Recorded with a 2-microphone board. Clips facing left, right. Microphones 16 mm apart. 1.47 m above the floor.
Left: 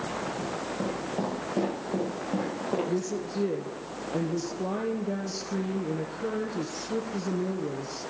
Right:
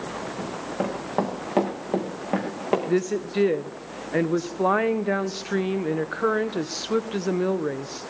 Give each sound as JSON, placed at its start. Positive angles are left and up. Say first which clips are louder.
{"t": 0.4, "sound": "running footsteps", "louder": "right 3 dB", "side_deg": -55, "distance_m": 7.0}
{"t": 2.9, "sound": "a woman speaking", "louder": "right 6 dB", "side_deg": -65, "distance_m": 1.1}